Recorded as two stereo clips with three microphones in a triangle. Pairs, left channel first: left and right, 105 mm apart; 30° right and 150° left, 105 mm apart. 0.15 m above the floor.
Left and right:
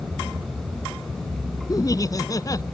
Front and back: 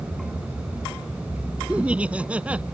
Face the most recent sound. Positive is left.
turn(degrees=80)